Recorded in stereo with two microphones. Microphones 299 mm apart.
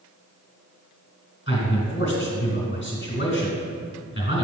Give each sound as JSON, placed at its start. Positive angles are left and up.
{"t": 1.5, "sound": "a man speaking", "side_deg": 35, "distance_m": 2.0}